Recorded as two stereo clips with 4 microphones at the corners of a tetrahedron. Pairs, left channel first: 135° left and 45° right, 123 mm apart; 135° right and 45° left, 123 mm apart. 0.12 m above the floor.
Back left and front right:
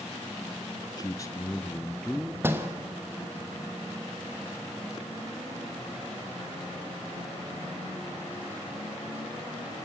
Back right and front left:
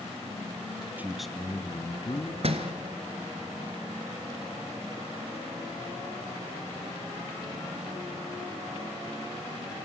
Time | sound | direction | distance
1.0 | a man speaking | 110° left | 1.3 m
2.4 | a door slam | 25° left | 1.7 m